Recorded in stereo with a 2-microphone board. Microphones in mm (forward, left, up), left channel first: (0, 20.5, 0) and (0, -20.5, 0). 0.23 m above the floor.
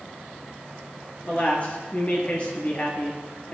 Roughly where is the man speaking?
Left.